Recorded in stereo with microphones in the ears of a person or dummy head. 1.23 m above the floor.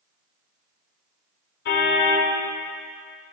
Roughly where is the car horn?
Left.